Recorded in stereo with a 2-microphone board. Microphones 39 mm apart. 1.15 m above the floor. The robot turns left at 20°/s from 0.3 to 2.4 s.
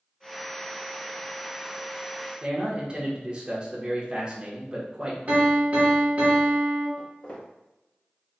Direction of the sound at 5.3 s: 40° right (ahead or behind).